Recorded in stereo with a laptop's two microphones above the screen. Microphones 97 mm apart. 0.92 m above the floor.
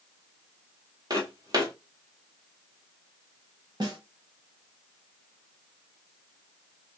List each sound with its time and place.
1.1 s footsteps: 40° right (ahead or behind), 1.3 m
3.8 s a snare drum: 50° right (ahead or behind), 1.0 m